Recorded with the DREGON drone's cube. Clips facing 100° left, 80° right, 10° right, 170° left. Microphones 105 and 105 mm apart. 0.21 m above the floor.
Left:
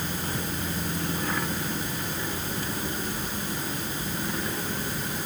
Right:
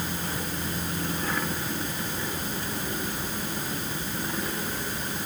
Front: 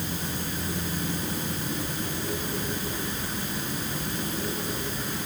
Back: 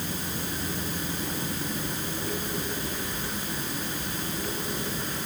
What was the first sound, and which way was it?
Only background noise.